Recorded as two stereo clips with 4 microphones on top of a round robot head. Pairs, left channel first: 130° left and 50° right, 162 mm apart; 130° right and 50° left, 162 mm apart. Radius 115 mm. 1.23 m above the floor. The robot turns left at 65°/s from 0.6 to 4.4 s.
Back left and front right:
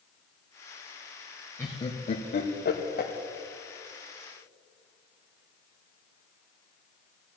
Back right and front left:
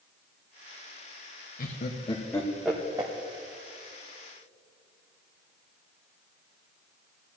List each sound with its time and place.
1.6 s laughter: 155° right, 1.3 m; by 3.1 s 110° left, 1.3 m